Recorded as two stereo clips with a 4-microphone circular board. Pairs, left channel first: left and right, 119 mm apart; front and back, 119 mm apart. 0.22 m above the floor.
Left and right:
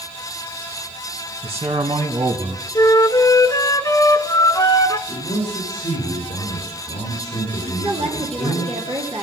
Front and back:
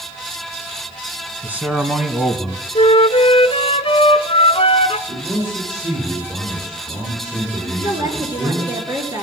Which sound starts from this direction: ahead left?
A flute, at 2.8 s.